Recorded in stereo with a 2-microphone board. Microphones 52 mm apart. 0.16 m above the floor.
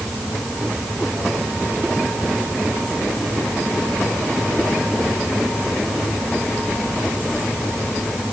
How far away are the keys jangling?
No keys jangling in this recording.